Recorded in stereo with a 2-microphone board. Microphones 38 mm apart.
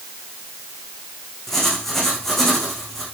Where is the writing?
5° left (ahead or behind), 5.5 m.